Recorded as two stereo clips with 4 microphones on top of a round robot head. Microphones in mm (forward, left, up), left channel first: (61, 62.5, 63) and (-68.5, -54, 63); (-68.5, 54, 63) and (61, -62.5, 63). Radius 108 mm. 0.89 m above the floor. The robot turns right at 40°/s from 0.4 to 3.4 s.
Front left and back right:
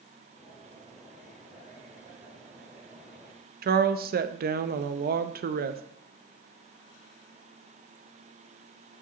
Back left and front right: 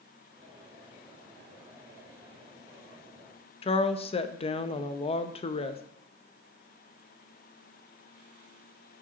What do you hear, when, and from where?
3.6 s a woman speaking: 165° right, 0.7 m